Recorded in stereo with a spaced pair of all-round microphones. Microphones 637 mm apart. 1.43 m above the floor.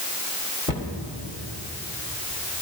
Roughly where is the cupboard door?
Left.